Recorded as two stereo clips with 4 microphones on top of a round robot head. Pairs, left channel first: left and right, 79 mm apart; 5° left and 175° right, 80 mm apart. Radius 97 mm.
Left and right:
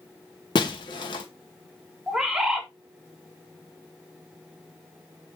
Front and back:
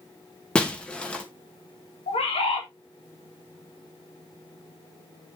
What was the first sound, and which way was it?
Breaking glass, 80° left.